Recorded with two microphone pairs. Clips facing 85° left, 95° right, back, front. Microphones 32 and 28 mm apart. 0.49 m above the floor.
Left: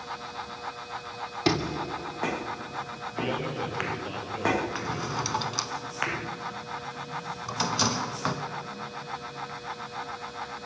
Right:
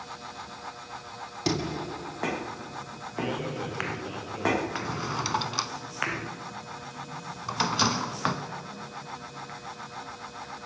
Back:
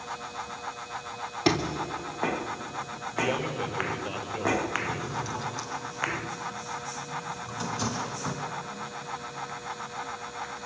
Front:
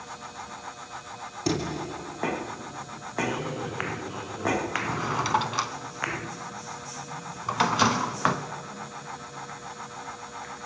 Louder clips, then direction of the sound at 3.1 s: Left 1 dB, back 1 dB; 170° left.